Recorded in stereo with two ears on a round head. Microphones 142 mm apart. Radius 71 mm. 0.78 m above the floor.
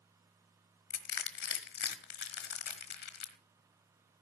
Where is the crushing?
65° left (ahead or behind), 1.3 m.